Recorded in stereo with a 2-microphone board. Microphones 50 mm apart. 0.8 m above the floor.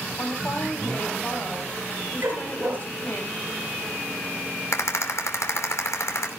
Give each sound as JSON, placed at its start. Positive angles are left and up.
{"t": 0.2, "sound": "a woman speaking", "side_deg": 40, "distance_m": 5.5}
{"t": 2.2, "sound": "a dog barking", "side_deg": -55, "distance_m": 6.0}
{"t": 4.7, "sound": "a rattle", "side_deg": 75, "distance_m": 2.5}